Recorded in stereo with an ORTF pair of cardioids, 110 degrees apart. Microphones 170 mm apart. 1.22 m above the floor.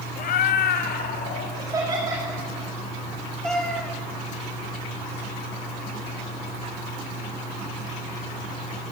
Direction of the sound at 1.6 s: 20° right.